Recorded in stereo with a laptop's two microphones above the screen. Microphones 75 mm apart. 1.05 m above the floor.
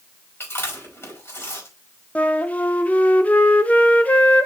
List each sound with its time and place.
0.4 s chewing: 30° left (ahead or behind), 4.5 m
2.1 s a flute: 20° left (ahead or behind), 0.6 m